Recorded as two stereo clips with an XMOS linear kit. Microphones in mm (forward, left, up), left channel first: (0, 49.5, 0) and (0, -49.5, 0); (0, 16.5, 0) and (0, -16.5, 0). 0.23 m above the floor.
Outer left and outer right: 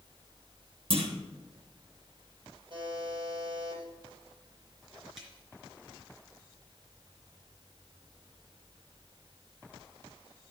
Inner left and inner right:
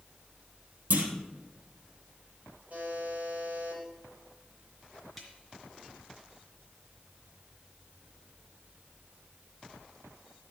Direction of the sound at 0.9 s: 70° right (ahead or behind).